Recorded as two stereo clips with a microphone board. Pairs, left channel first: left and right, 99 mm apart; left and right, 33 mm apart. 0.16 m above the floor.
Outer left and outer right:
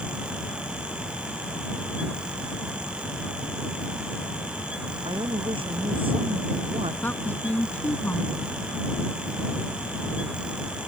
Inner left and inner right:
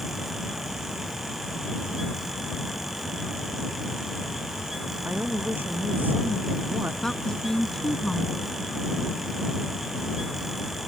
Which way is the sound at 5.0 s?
65° right (ahead or behind).